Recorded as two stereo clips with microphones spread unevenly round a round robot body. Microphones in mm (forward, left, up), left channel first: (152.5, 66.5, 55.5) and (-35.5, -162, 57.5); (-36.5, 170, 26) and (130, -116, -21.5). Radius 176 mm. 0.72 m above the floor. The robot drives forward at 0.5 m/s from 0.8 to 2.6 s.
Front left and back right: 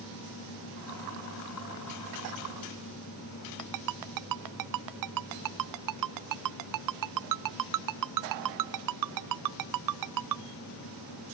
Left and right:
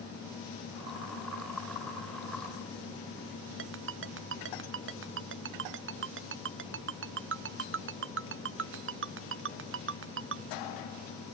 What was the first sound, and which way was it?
A ringtone, 120° right.